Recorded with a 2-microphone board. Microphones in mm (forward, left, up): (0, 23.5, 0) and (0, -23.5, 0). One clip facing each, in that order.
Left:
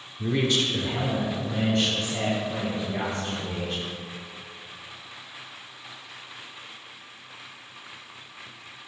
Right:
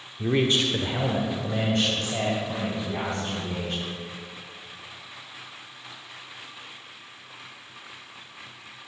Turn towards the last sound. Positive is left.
turn(degrees=-45)  # may be behind; listen again after turning